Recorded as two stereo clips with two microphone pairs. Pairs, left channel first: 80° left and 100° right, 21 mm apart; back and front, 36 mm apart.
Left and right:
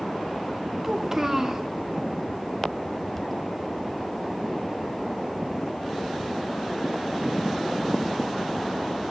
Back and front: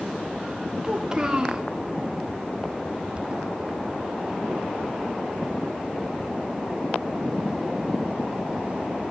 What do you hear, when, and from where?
0.8 s a child speaking: 50° right, 0.7 m